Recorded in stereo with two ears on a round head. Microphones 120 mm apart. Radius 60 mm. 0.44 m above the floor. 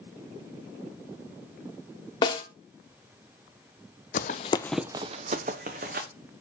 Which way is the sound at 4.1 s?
60° left (ahead or behind).